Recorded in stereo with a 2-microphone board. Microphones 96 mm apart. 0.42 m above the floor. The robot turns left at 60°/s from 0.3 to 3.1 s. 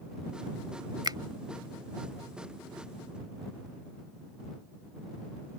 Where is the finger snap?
55° right (ahead or behind); by 1.2 s 45° right (ahead or behind).